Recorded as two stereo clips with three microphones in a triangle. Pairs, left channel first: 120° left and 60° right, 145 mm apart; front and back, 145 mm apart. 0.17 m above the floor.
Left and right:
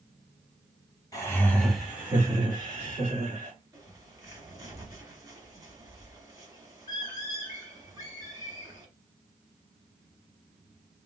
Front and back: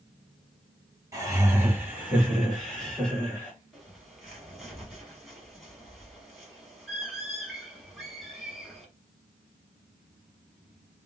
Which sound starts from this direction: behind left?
Laughter, at 1.1 s.